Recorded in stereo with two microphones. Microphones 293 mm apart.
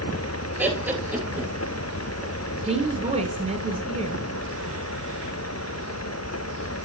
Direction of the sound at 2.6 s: 20° right (ahead or behind).